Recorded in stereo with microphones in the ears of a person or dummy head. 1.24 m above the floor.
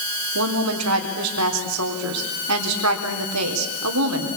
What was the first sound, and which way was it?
A woman speaking, 80° right.